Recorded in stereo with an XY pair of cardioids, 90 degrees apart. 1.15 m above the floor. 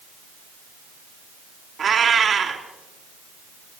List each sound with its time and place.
1.8 s a cat meowing: 55° right, 3 m